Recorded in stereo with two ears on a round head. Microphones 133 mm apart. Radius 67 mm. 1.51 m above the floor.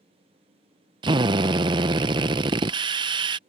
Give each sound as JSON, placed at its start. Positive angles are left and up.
{"t": 1.0, "sound": "a drill", "side_deg": -30}